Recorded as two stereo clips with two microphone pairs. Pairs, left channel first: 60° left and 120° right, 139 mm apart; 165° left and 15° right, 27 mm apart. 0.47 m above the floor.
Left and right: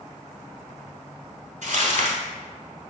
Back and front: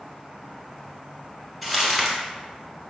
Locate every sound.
1.6 s crumpling: 110° right, 1.1 m